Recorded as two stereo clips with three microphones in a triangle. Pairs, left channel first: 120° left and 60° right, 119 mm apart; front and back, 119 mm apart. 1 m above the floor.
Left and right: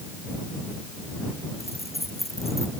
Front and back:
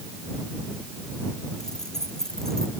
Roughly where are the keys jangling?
Left.